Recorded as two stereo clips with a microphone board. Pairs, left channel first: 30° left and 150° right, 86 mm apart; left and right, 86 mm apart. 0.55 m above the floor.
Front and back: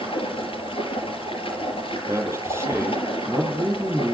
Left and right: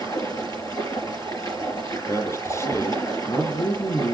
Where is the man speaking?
150° left, 8.5 m.